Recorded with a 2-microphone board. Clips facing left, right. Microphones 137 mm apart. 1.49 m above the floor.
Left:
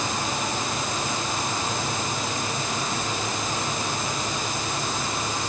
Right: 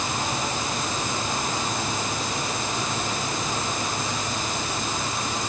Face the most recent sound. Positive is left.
No sound to turn to.